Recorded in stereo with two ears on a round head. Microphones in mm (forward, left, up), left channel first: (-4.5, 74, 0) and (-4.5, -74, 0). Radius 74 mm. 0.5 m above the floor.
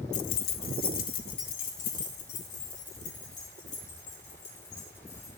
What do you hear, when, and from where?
0.1 s keys jangling: 45° left (ahead or behind), 0.5 m; by 5.3 s 50° left (ahead or behind), 6 m